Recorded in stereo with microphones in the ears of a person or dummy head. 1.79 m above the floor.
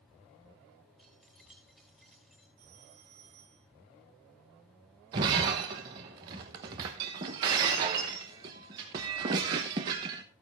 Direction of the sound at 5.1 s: 20° right (ahead or behind).